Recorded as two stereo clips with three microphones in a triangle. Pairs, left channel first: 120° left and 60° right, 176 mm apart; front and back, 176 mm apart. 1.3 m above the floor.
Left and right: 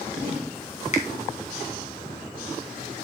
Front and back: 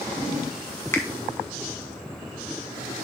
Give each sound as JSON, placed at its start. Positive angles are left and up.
{"t": 0.9, "sound": "a finger snap", "azimuth_deg": 75, "distance_m": 1.3}